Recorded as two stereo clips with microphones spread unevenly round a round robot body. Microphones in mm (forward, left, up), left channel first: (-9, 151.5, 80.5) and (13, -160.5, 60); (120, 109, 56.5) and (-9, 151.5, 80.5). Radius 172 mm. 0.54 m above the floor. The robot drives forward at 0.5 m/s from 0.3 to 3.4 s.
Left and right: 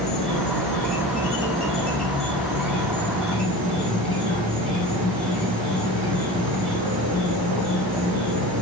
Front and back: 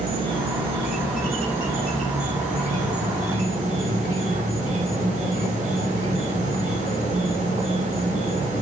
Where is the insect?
175° right, 4 m; by 8.6 s straight behind, 5.5 m.